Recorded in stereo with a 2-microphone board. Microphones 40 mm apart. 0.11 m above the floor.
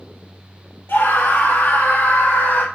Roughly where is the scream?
Left.